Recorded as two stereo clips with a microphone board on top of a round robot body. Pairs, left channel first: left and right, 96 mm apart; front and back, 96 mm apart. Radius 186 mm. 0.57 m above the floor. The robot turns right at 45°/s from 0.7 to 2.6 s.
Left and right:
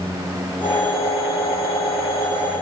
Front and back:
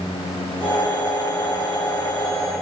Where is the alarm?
No alarm in this recording.